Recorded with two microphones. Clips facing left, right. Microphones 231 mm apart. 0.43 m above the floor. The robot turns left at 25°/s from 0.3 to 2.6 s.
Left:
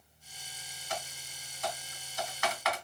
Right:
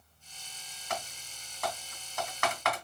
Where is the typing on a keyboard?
60° right (ahead or behind), 1.6 m; by 2.9 s 55° right (ahead or behind), 1.6 m.